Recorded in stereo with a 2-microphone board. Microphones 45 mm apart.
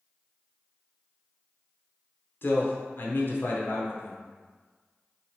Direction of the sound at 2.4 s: 55° left (ahead or behind).